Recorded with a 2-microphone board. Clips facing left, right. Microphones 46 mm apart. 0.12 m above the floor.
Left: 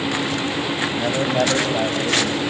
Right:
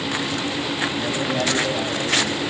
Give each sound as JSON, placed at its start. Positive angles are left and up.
{"t": 1.0, "sound": "a man speaking", "side_deg": 40, "distance_m": 4.5}